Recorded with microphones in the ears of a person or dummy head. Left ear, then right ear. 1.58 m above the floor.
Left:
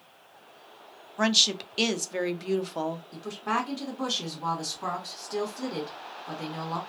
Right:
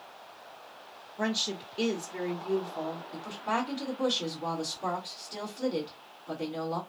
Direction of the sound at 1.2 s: 45° left (ahead or behind).